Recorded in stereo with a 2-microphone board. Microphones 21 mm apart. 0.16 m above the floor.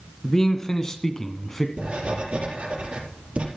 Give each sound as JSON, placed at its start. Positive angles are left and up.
{"t": 0.2, "sound": "a man speaking", "side_deg": 25, "distance_m": 1.4}
{"t": 1.8, "sound": "writing", "side_deg": -65, "distance_m": 4.0}